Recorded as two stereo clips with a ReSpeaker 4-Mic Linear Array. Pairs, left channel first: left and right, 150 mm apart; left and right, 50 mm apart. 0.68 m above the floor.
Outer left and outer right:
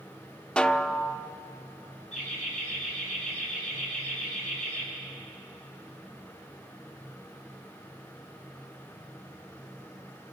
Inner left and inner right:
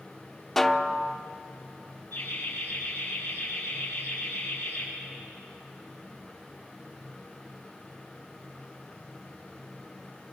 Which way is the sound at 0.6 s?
5° left (ahead or behind).